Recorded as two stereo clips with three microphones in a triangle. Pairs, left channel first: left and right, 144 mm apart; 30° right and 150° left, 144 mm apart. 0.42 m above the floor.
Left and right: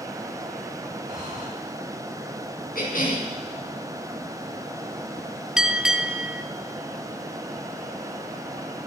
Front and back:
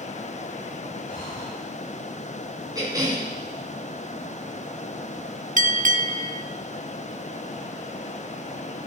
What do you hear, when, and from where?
1.1 s breathing: 30° right, 7 m
2.8 s a cough: 85° left, 4.5 m
5.6 s a bell: 175° right, 0.6 m